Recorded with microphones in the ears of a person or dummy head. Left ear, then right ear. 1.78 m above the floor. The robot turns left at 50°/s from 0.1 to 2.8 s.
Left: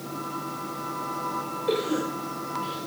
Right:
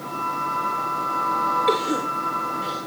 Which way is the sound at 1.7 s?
65° right (ahead or behind).